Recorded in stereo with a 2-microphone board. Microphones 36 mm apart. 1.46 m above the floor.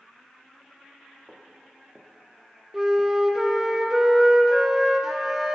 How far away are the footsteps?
About 2.5 m.